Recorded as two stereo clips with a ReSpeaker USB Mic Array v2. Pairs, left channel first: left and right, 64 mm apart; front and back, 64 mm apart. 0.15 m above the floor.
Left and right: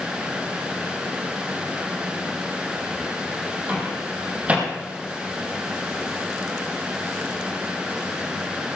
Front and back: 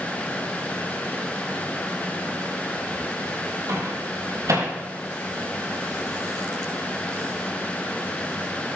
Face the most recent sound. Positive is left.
turn(degrees=-155)